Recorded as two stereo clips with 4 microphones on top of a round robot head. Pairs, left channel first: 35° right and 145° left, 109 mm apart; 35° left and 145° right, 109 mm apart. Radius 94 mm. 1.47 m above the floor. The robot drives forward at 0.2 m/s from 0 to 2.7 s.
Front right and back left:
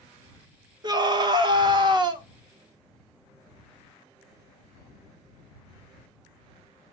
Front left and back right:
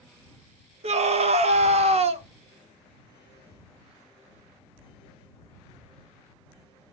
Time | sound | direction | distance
0.8 | a scream | 165° right | 1.1 m